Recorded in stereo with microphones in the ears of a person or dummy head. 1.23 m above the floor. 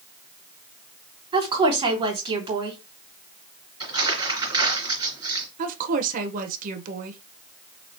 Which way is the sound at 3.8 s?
25° right (ahead or behind).